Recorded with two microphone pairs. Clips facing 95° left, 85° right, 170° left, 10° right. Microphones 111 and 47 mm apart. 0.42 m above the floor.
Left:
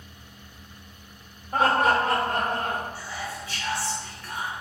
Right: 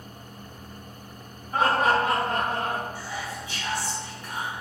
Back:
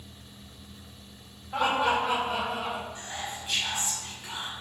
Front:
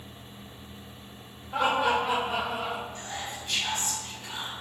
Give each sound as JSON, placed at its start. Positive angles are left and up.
{"t": 1.5, "sound": "laughter", "azimuth_deg": 75, "distance_m": 1.1}
{"t": 3.0, "sound": "whispering", "azimuth_deg": -130, "distance_m": 0.9}